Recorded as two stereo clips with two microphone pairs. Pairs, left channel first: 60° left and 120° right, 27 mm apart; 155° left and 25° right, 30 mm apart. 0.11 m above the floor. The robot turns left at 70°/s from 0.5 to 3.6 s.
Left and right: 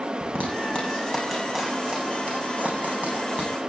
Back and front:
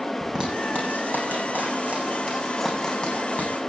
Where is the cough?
No cough in this recording.